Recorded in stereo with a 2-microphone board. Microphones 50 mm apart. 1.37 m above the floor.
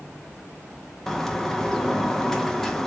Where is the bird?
10° left (ahead or behind), 0.5 m.